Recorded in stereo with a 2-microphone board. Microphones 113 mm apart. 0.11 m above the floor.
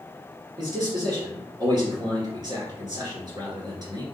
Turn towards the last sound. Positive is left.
turn(degrees=-40)  # may be behind; listen again after turning